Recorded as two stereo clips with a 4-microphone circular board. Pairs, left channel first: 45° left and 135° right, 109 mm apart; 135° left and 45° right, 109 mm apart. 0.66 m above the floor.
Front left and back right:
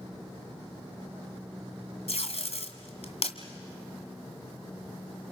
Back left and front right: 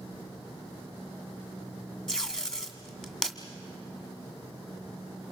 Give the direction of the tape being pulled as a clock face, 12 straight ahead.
10 o'clock.